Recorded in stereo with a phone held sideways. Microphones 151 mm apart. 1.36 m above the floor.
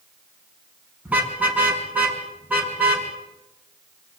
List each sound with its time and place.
1.1 s a car horn: 10° right (ahead or behind), 5.5 m